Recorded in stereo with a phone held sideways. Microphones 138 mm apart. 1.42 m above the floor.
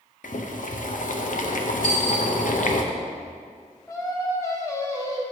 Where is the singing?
20° left (ahead or behind), 0.9 m.